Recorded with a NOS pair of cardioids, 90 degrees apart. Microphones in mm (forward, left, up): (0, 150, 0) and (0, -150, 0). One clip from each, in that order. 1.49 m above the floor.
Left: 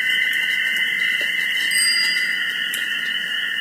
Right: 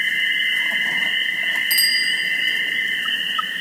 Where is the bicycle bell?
65° right, 5.5 m.